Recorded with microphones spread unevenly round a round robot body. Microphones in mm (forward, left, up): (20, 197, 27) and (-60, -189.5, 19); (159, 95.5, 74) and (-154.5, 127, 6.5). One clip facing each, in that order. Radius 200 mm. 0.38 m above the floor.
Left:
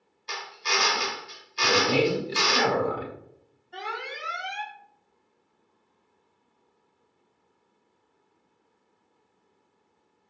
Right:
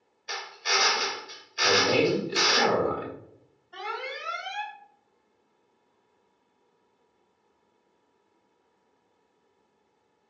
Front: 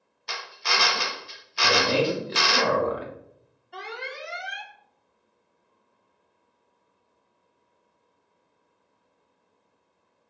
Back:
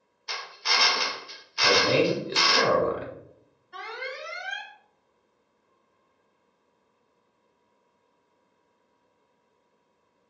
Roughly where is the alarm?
Ahead left.